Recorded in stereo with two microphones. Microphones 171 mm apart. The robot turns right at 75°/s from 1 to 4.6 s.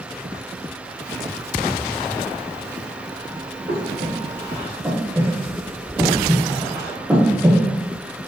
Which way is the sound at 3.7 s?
70° right (ahead or behind).